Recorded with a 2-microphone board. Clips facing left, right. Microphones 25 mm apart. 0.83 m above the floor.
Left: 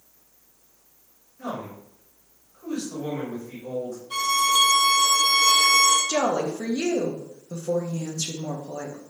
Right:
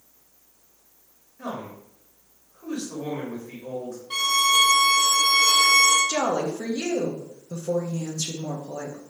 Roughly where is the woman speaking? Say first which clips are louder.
Left 1 dB; left.